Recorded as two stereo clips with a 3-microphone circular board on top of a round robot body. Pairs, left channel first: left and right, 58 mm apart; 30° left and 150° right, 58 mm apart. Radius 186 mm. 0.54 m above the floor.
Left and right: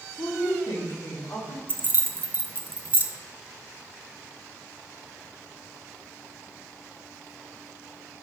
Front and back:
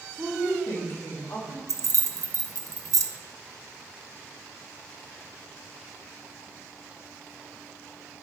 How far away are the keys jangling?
About 0.5 m.